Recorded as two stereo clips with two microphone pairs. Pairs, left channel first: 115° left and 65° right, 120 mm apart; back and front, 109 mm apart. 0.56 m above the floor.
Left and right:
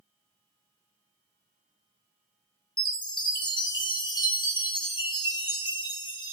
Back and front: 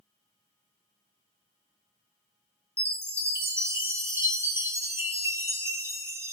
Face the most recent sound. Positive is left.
turn(degrees=60)